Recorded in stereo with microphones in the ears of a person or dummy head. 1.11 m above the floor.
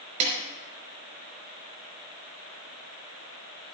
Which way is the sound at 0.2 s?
45° right (ahead or behind).